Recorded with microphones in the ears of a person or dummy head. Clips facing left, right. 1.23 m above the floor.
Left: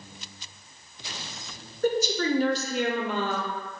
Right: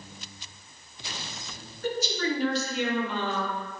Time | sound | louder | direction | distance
1.8 | a woman speaking | left 4 dB | 40° left (ahead or behind) | 0.5 m